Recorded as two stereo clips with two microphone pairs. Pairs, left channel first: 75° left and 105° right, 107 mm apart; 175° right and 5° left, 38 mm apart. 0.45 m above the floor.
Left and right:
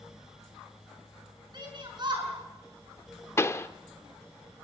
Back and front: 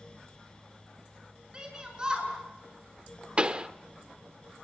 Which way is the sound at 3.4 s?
35° left.